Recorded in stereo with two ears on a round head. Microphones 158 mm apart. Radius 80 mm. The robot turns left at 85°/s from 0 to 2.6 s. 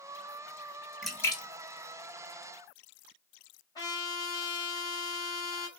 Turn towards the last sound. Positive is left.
turn(degrees=20)  # may be behind; listen again after turning